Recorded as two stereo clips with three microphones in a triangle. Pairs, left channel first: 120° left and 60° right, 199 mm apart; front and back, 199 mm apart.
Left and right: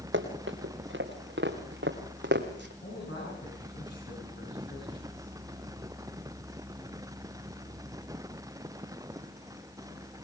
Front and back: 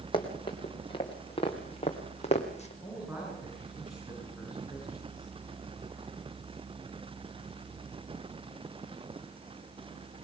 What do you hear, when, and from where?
0.1 s running footsteps: 65° right, 3.5 m; by 2.7 s 50° right, 2 m
2.8 s a man speaking: 95° left, 9 m